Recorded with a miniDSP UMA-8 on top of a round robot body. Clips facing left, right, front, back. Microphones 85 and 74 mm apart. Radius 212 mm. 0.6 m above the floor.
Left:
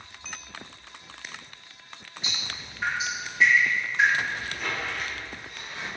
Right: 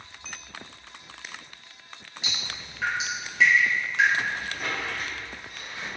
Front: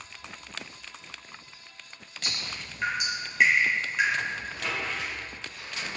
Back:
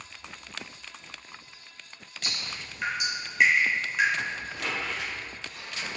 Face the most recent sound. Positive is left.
turn(degrees=-140)